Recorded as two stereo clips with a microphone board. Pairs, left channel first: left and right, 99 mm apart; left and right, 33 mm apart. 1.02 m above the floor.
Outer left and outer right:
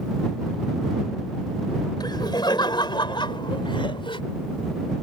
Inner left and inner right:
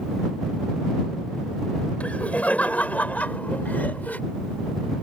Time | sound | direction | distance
2.0 | laughter | 45° left (ahead or behind) | ?